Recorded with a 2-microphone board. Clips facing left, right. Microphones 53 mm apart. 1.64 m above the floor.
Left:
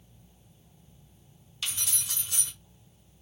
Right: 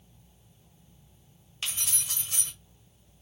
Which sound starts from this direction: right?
Keys jangling, at 1.6 s.